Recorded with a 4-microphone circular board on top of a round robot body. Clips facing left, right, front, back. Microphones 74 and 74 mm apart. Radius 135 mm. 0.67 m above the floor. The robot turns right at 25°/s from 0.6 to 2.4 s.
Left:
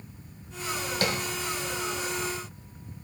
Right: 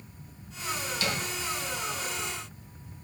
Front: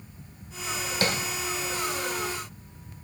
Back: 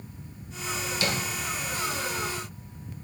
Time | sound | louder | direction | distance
1.0 | tapping | left 4 dB, front 3 dB | 50° left | 1.4 m